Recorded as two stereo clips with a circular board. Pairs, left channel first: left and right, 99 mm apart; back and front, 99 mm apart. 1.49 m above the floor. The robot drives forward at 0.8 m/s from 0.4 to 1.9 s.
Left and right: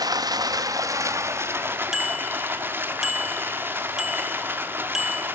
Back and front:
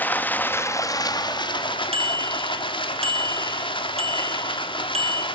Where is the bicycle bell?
5° right, 2.5 m.